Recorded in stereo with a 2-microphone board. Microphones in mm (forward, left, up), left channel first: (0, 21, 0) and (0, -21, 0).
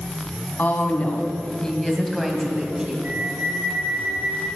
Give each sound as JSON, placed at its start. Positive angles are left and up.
{"t": 0.6, "sound": "a woman speaking", "side_deg": 45, "distance_m": 2.0}
{"t": 3.0, "sound": "a flute", "side_deg": -40, "distance_m": 4.5}